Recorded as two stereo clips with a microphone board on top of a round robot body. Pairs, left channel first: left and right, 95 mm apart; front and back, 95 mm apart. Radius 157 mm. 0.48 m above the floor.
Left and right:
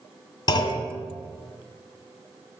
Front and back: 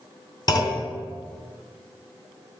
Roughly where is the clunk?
Ahead left.